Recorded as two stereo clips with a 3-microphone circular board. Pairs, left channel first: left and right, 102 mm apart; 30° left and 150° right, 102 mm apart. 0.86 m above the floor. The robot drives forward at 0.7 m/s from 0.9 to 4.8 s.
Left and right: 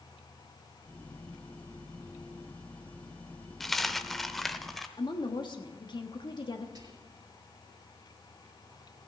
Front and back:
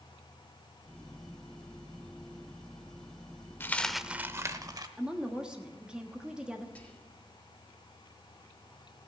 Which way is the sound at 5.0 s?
130° left.